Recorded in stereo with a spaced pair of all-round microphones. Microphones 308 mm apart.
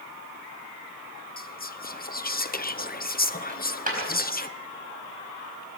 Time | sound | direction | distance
1.4 | whispering | 30° left (ahead or behind) | 0.6 m
3.5 | a dropped coin | 25° right (ahead or behind) | 4.5 m